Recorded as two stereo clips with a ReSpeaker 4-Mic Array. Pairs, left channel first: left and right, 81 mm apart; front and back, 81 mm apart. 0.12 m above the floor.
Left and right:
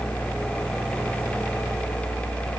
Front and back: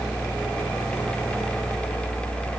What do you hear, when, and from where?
Only background noise.